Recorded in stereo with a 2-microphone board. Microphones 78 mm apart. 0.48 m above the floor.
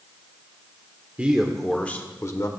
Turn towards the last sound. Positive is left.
turn(degrees=45)  # may be behind; listen again after turning